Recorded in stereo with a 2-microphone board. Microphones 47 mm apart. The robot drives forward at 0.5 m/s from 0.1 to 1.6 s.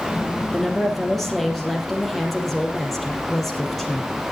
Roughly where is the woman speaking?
Centre.